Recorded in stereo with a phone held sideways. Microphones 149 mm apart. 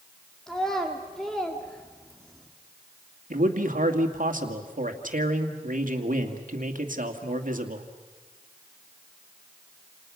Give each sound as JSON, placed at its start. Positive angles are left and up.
{"t": 0.5, "sound": "a child speaking", "side_deg": 5, "distance_m": 2.0}
{"t": 3.3, "sound": "a man speaking", "side_deg": -65, "distance_m": 2.0}